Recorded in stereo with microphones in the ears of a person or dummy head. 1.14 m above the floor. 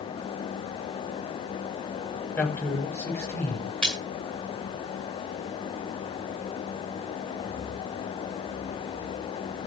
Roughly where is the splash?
Centre.